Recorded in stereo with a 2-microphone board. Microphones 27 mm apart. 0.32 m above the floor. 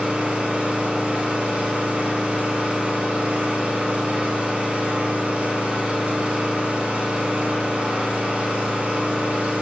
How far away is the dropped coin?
No dropped coin in this recording.